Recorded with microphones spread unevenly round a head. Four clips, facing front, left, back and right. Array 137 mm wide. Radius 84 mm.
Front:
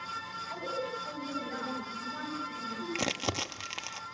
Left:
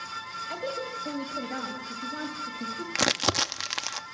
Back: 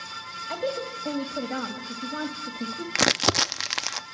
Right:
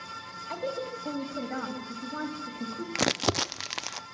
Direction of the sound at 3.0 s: 170° right.